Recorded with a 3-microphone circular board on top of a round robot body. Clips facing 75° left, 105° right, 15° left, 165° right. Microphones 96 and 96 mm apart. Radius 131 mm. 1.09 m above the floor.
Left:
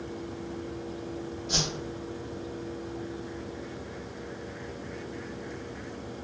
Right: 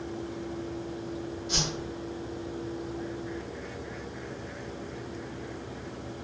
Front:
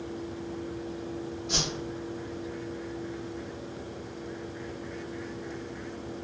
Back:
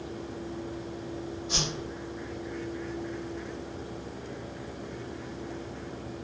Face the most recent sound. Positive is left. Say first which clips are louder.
# left 1 dB, front 1 dB
turn(degrees=35)